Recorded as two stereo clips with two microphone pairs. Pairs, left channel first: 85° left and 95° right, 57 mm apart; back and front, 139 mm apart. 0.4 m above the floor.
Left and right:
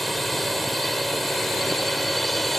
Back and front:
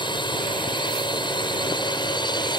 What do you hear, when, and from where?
0.0 s a drone: 170° left